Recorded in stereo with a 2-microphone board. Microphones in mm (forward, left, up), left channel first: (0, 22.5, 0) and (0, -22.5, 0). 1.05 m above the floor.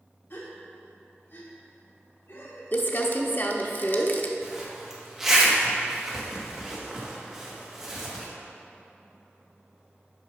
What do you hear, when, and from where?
0.3 s a gasp: 50° left (ahead or behind), 1.2 m
2.7 s crumpling: 45° left (ahead or behind), 0.6 m
4.4 s a zipper: 10° right (ahead or behind), 1.1 m